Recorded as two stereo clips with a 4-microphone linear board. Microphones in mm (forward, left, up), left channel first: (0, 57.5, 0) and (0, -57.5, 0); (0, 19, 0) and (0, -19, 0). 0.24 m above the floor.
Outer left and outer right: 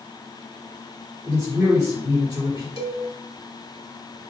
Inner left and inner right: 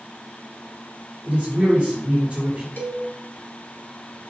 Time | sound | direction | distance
1.2 | a man speaking | 25° right (ahead or behind) | 3 m
2.8 | a cowbell | 55° left (ahead or behind) | 1.4 m